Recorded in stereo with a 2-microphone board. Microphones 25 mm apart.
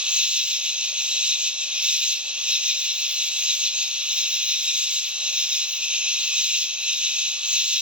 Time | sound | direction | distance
0.0 | an insect | 45° right (ahead or behind) | 1.3 m